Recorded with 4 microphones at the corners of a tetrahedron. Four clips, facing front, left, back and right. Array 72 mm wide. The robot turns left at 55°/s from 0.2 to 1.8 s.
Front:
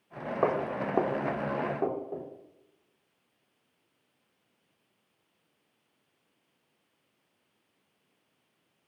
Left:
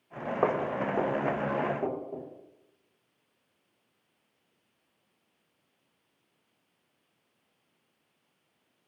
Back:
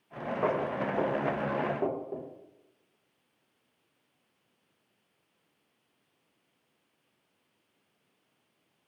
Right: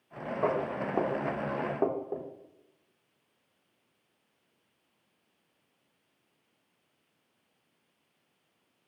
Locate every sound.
0.4 s footsteps: 50° left, 0.5 m; by 2.3 s 100° right, 1.0 m